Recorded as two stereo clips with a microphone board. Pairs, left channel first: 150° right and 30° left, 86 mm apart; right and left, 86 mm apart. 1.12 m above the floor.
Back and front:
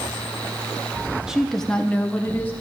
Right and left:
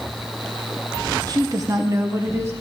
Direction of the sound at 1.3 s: 110° left.